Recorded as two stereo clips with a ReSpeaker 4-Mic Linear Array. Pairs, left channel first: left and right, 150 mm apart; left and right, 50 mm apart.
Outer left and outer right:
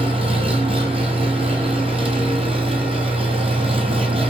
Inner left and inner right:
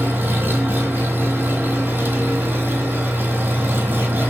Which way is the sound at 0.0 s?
40° right (ahead or behind).